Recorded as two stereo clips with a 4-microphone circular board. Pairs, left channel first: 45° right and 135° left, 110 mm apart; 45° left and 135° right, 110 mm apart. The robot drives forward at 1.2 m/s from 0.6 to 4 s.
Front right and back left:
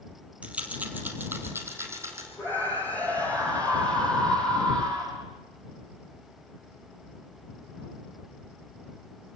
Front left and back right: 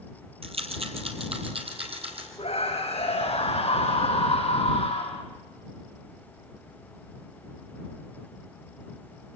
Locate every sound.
0.4 s a rattle: 150° right, 3 m; by 2.3 s 160° right, 4.5 m
2.4 s a scream: 25° left, 7 m; by 5.2 s 35° left, 5 m